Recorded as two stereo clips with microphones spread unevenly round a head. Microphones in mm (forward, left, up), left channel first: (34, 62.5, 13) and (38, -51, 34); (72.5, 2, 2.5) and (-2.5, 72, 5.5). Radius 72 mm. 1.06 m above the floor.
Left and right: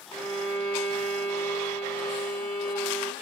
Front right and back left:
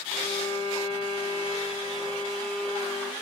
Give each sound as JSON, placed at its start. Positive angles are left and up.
{"t": 0.1, "sound": "a violin", "azimuth_deg": -65, "distance_m": 2.0}